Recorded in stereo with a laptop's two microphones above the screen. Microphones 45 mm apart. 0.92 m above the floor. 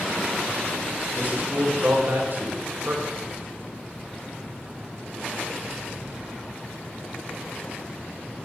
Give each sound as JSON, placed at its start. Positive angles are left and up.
{"t": 1.1, "sound": "a man speaking", "side_deg": -50, "distance_m": 3.0}